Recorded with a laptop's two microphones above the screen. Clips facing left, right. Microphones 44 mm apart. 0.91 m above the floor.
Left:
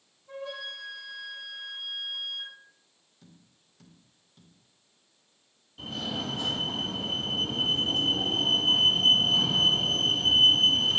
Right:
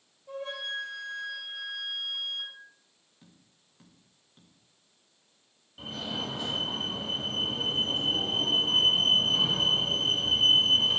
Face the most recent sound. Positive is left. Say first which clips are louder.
# left 1 dB
turn(degrees=-15)  # may be behind; listen again after turning